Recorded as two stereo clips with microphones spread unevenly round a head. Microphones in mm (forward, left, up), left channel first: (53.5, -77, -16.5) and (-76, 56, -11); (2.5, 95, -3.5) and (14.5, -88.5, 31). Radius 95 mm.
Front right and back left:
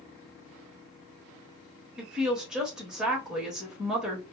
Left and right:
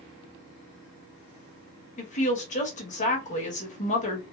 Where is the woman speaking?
50° left, 1.0 m.